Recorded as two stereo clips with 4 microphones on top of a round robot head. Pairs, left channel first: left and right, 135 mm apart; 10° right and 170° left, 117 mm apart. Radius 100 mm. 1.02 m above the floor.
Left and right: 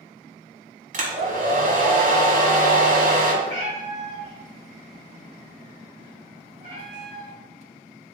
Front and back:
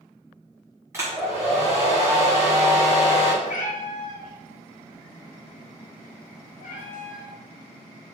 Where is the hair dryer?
115° right, 1.6 m.